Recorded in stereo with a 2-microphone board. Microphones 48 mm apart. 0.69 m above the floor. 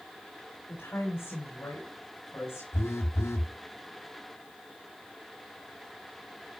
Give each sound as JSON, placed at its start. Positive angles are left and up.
{"t": 0.7, "sound": "a woman speaking", "side_deg": 60, "distance_m": 5.0}
{"t": 2.7, "sound": "a phone buzzing", "side_deg": 80, "distance_m": 0.8}